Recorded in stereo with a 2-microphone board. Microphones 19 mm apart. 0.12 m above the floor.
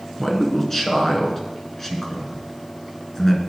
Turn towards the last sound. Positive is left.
turn(degrees=20)  # may be behind; listen again after turning